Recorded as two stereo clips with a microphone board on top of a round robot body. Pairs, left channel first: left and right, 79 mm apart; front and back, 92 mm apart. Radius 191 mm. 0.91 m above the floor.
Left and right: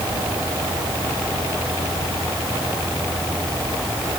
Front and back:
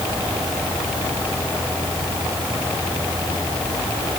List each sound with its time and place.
Only background noise.